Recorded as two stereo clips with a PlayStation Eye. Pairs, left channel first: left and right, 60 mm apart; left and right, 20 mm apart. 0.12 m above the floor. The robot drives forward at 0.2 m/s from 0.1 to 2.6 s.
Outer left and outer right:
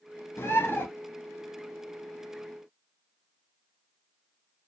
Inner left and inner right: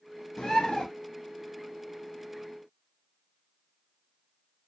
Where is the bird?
40° left (ahead or behind), 1.0 m.